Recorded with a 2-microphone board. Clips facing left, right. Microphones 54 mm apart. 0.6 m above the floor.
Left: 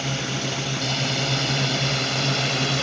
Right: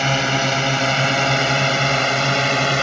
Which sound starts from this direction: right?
A drone, at 0.0 s.